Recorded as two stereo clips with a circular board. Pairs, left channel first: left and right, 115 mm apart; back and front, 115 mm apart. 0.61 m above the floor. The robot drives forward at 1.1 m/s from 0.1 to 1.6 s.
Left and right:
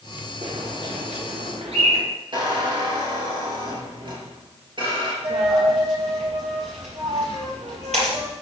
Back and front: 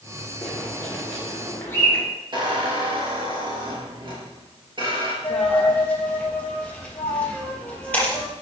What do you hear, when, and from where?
0.4 s a bird: 100° right, 5 m; by 2.0 s 115° right, 5.5 m
2.3 s a squeak: 45° right, 3 m
5.2 s a dropped coin: 100° right, 4.5 m